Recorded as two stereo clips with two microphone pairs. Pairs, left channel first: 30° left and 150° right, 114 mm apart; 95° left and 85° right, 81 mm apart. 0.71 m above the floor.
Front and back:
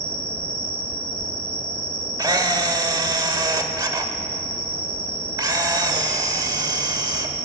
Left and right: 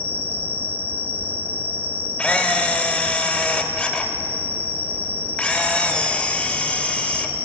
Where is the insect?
20° right, 1.0 m.